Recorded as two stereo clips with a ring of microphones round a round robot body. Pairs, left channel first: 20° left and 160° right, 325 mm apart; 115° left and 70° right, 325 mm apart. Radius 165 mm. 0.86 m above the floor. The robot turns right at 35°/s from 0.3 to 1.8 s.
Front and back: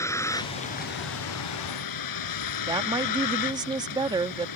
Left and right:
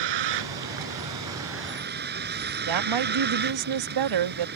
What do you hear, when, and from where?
0.0 s a vehicle: 60° right; by 4.6 s 5° right
2.7 s a woman speaking: 80° right